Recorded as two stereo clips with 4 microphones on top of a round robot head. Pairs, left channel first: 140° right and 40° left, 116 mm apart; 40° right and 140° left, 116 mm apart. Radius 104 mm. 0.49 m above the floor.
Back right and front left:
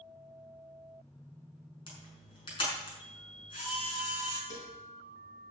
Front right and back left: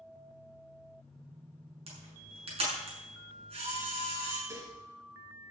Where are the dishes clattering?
160° right, 5 m.